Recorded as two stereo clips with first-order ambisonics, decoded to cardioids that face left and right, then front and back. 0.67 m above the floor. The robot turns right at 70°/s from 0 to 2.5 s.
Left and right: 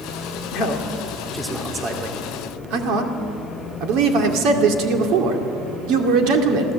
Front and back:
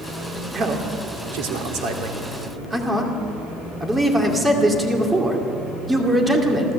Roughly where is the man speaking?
Behind left.